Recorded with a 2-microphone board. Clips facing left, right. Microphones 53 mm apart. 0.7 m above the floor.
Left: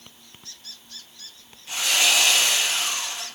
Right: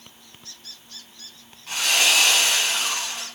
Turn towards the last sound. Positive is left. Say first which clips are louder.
# right 1 dB
turn(degrees=-70)  # may be behind; listen again after turning